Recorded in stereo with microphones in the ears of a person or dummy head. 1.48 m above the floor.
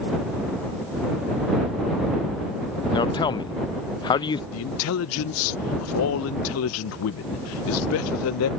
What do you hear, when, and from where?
2.9 s a man speaking: 25° left (ahead or behind)
4.5 s a man speaking: 70° left (ahead or behind)